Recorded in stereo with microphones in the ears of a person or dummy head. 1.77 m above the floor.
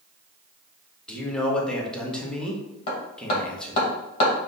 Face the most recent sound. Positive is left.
turn(degrees=40)  # may be behind; listen again after turning